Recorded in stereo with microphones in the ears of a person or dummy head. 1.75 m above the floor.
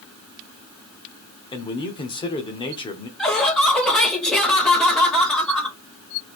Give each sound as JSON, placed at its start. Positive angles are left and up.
{"t": 1.5, "sound": "a man speaking", "side_deg": 25, "distance_m": 0.8}
{"t": 3.2, "sound": "laughter", "side_deg": 5, "distance_m": 1.2}